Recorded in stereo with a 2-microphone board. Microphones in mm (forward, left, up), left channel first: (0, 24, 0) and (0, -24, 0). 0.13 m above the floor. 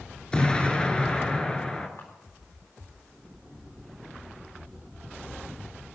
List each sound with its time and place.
0.3 s an explosion: 20° left (ahead or behind), 1.6 m
2.0 s a camera shutter: 85° left, 3.5 m